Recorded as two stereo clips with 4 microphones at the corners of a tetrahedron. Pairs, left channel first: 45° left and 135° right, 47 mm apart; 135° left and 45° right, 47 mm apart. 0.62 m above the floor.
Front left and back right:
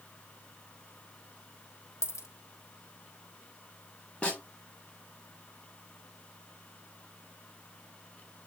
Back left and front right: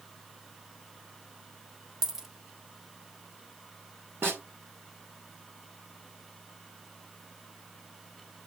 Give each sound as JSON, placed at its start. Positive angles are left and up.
{"t": 2.0, "sound": "a dropped coin", "azimuth_deg": 35, "distance_m": 1.1}
{"t": 4.2, "sound": "a snare drum", "azimuth_deg": -15, "distance_m": 2.5}